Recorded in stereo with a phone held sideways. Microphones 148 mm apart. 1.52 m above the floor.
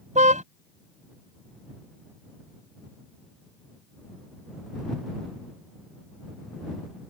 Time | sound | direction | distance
0.1 | a car horn | 55° right (ahead or behind) | ?